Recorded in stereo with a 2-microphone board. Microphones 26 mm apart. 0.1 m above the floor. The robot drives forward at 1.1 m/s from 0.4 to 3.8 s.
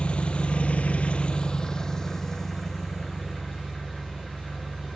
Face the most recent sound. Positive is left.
turn(degrees=10)  # may be behind; listen again after turning